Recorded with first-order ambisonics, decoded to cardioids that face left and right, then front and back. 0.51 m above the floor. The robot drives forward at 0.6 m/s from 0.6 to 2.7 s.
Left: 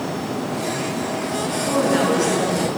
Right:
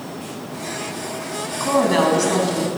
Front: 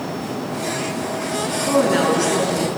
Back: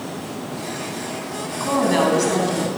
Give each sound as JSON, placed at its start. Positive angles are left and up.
{"t": 1.6, "sound": "a woman speaking", "azimuth_deg": -120, "distance_m": 4.5}